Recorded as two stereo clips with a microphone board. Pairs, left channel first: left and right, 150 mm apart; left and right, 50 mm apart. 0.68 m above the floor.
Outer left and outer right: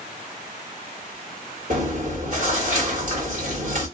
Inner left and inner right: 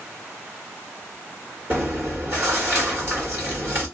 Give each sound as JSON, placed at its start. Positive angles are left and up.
{"t": 1.7, "sound": "chewing", "side_deg": -60, "distance_m": 1.8}